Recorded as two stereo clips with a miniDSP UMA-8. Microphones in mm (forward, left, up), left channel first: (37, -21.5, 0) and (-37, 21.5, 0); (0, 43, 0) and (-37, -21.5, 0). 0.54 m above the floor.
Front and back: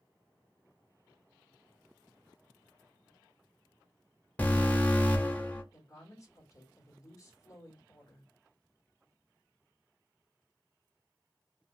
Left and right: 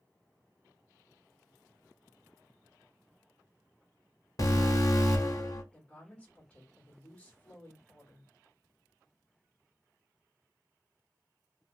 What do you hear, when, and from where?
4.4 s an alarm: 35° left, 1.2 m
5.7 s a woman speaking: 5° right, 1.5 m